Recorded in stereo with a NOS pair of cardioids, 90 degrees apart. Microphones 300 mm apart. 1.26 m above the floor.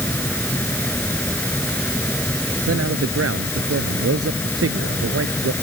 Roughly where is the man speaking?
Ahead right.